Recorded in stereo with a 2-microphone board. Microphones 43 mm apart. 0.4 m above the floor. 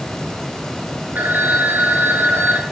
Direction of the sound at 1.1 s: 45° right (ahead or behind).